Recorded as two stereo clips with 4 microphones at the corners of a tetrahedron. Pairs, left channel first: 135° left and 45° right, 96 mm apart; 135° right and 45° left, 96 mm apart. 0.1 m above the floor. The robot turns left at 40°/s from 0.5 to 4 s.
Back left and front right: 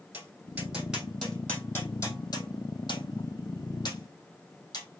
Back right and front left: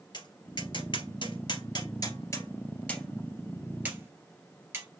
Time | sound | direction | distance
0.1 | tapping | 110° right | 2.5 m